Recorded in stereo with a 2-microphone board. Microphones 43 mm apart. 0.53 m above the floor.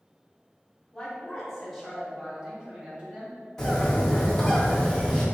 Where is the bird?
15° left (ahead or behind), 1.2 m.